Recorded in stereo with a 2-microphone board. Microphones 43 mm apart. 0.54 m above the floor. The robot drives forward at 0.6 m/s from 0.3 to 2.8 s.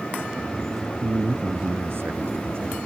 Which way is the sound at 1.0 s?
70° right (ahead or behind).